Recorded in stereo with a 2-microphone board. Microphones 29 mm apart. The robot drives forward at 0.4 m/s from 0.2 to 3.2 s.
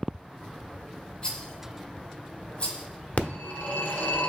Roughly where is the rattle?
Left.